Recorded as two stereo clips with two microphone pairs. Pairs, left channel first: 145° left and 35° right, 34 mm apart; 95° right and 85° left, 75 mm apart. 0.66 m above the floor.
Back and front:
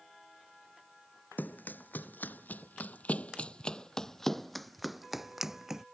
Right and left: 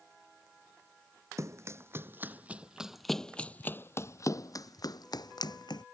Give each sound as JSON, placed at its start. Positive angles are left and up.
{"t": 1.4, "sound": "running footsteps", "azimuth_deg": 135}